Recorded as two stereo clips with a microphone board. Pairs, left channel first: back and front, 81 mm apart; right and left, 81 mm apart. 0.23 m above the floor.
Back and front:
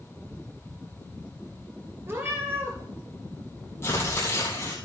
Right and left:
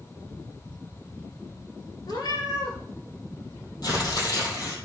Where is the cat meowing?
60° right, 2.5 m.